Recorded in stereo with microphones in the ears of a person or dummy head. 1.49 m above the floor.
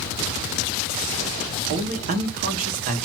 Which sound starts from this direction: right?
A man speaking, at 1.7 s.